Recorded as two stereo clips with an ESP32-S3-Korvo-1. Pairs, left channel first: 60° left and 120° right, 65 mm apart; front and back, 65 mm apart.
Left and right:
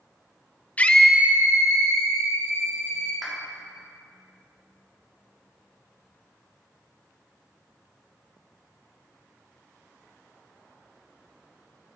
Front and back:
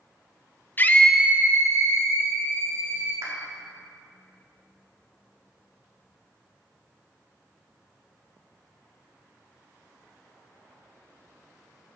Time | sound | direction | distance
0.8 | a scream | 20° left | 0.6 m
3.2 | a clap | 150° left | 1.7 m